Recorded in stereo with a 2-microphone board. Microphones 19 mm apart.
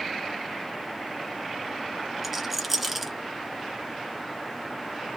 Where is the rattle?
5° right (ahead or behind), 0.6 m.